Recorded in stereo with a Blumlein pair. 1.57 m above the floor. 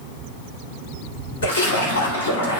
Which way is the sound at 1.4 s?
65° left.